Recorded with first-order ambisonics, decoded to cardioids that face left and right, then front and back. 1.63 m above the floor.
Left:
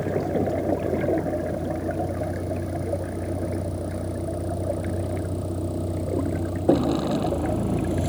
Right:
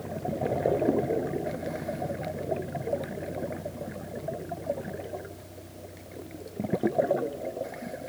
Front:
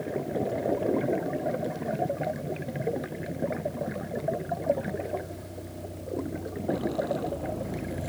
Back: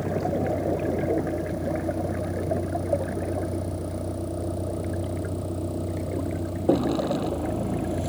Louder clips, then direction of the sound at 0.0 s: Left 7 dB, back 4 dB; 145° left.